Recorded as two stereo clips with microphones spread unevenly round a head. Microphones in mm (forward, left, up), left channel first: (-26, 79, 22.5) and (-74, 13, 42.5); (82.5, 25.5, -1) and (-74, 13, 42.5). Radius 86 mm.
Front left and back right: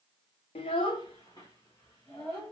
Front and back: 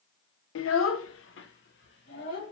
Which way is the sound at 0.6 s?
15° left.